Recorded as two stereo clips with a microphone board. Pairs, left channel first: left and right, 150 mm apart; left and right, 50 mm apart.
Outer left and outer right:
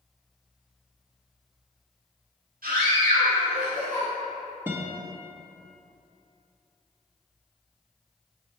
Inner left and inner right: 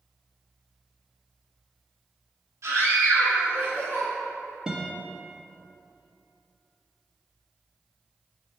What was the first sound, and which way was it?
A scream, 75° right (ahead or behind).